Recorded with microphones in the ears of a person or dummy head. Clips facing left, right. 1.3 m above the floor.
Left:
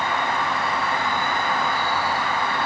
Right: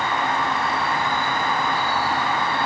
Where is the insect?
10° left (ahead or behind), 1.2 m.